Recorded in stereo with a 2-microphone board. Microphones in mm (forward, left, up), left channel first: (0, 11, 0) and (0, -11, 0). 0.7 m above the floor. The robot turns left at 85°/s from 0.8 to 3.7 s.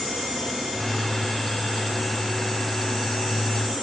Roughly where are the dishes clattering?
No dishes clattering in this recording.